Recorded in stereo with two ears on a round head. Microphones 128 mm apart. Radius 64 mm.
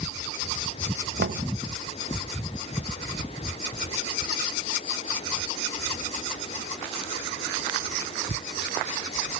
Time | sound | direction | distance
1.2 | knocking | 80° right | 1.5 m